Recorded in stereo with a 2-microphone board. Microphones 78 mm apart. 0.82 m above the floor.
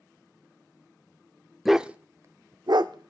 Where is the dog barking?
Centre (ahead or behind), 0.6 m; by 3.1 s 65° right (ahead or behind), 0.8 m.